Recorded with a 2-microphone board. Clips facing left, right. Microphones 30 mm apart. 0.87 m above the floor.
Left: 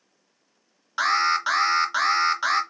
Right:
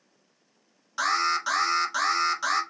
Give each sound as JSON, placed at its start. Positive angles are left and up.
{"t": 1.0, "sound": "an alarm", "side_deg": 30, "distance_m": 0.7}